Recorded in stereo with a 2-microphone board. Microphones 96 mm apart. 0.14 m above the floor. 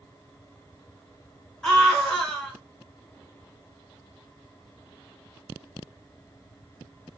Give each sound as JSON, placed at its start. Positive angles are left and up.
{"t": 1.6, "sound": "a scream", "side_deg": 0, "distance_m": 1.2}